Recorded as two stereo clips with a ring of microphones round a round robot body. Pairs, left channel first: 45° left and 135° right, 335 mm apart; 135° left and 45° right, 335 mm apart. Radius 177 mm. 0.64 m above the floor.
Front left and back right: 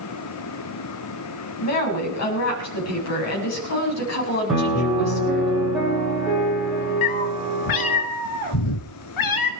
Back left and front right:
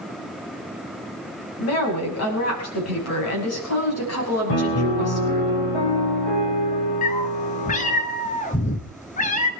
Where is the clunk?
I don't hear a clunk.